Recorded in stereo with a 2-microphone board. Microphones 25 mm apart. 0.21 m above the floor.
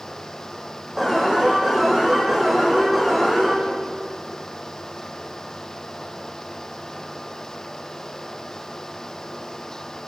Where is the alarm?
20° right (ahead or behind), 9.5 m.